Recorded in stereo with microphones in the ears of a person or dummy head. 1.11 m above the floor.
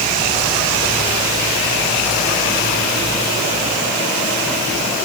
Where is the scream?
I don't hear a scream.